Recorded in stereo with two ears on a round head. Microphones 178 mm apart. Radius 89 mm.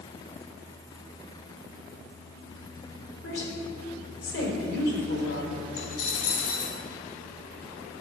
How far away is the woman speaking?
About 3.5 m.